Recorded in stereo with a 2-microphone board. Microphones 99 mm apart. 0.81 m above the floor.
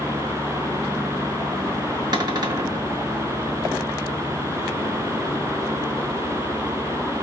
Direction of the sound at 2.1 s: 45° right (ahead or behind).